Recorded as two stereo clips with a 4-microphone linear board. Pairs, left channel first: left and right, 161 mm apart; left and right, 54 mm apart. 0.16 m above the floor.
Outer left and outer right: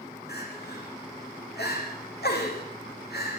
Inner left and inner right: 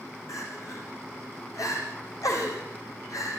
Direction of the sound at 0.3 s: 80° left.